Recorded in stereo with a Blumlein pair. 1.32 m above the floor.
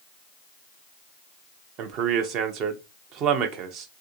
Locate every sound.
1.8 s a man speaking: 35° right, 0.6 m